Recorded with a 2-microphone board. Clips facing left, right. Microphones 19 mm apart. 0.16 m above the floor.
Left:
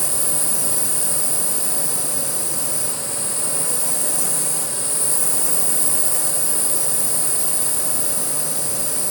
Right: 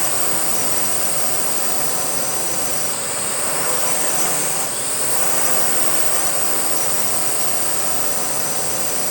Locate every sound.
0.0 s a drone: 45° right (ahead or behind)